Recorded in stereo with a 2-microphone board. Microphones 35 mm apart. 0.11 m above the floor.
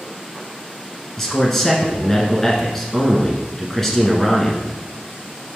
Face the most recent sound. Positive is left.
turn(degrees=10)  # may be behind; listen again after turning